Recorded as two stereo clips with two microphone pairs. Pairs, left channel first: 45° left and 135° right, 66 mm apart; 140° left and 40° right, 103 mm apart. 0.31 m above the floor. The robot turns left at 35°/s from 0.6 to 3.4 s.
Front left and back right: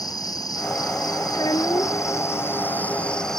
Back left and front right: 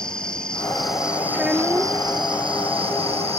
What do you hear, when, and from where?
0.0 s an insect: 55° left; by 3.4 s 40° right
1.3 s a child speaking: 45° left; by 2.1 s 20° left